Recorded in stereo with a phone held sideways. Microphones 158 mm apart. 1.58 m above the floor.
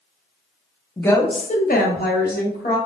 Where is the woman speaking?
10° left (ahead or behind), 0.6 m; by 2.8 s 75° left (ahead or behind), 1.1 m.